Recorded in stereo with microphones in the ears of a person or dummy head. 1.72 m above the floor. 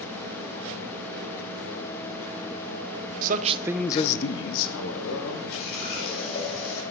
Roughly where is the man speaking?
Right.